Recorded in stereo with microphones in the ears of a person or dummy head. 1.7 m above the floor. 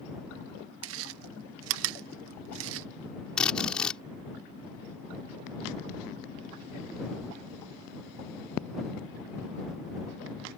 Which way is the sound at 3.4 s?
5° right (ahead or behind).